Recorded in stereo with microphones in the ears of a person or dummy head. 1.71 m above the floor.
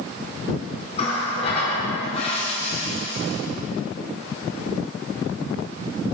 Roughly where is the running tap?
Left.